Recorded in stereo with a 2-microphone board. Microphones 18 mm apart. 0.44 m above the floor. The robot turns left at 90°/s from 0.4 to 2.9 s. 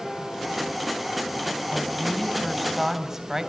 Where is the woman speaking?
85° left, 4 m; by 3.5 s 25° right, 4 m.